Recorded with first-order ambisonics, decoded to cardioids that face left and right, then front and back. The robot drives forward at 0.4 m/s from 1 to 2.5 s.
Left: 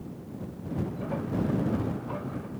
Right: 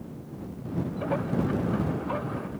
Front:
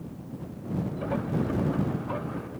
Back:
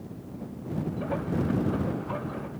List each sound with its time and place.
Only background noise.